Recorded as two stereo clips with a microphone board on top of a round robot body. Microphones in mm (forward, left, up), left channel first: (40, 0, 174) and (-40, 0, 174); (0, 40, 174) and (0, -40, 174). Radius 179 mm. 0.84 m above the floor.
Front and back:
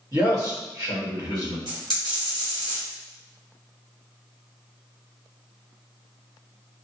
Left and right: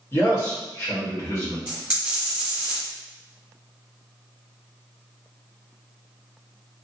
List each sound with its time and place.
0.1 s a man speaking: 140° left, 1.7 m
1.7 s a dropped coin: 165° right, 1.4 m